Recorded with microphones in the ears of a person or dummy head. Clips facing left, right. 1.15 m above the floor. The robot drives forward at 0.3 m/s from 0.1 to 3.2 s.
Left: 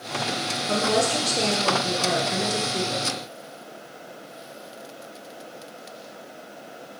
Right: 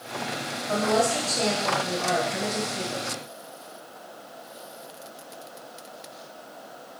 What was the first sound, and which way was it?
A woman speaking, 50° left (ahead or behind).